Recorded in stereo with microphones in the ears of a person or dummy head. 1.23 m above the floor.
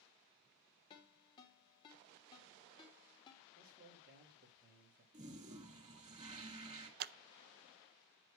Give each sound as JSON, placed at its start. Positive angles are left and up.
{"t": 0.9, "sound": "a ringtone", "side_deg": 20, "distance_m": 3.0}
{"t": 3.5, "sound": "a man speaking", "side_deg": -55, "distance_m": 2.5}
{"t": 5.1, "sound": "a toilet flushing", "side_deg": -35, "distance_m": 1.8}
{"t": 7.0, "sound": "scissors", "side_deg": -50, "distance_m": 0.5}